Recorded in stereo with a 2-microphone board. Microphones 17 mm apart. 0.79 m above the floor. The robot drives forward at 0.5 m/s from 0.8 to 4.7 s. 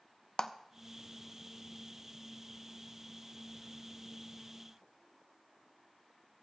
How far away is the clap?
About 0.6 m.